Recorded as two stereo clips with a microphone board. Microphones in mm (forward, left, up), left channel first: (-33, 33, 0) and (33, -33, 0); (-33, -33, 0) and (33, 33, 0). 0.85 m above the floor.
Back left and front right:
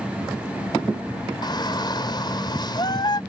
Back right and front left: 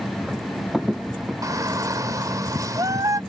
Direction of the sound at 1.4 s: 95° left.